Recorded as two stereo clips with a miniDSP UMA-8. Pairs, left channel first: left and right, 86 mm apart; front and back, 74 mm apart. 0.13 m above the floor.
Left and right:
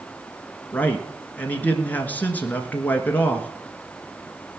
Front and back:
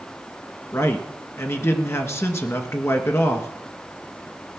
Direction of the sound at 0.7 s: 30° left.